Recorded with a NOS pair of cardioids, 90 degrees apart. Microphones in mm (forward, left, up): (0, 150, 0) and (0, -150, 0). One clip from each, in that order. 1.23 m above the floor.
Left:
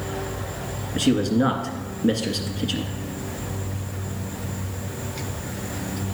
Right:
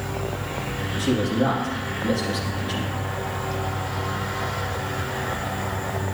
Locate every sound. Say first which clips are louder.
0.9 s a man speaking: left 2 dB; 55° left, 2.0 m